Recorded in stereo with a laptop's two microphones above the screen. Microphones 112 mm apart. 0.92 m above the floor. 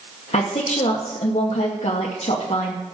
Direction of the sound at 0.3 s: 65° left (ahead or behind).